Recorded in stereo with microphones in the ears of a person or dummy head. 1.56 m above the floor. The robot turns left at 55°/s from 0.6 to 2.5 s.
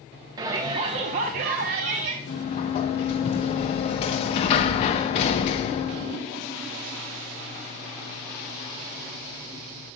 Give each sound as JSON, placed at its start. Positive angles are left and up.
{"t": 0.4, "sound": "a shout", "azimuth_deg": -35, "distance_m": 0.6}
{"t": 2.3, "sound": "a sliding door", "side_deg": 35, "distance_m": 0.5}